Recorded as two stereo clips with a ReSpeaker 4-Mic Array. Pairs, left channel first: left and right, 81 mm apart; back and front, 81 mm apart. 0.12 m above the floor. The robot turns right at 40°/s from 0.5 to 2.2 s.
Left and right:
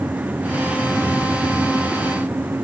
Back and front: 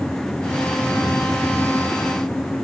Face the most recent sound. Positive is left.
No sound to turn to.